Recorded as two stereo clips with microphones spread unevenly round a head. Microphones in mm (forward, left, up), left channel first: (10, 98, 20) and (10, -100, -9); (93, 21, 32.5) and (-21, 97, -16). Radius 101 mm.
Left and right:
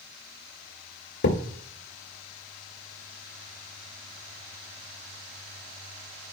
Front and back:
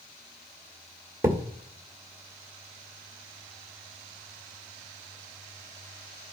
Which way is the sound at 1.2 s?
65° left.